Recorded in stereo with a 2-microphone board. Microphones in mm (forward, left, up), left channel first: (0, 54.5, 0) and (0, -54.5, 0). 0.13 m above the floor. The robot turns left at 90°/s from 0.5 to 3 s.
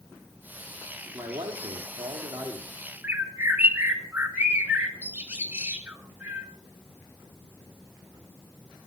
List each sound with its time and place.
1.1 s a man speaking: 10° right, 5 m; by 2.8 s 160° right, 5 m
3.0 s a bird: 15° right (ahead or behind), 1.5 m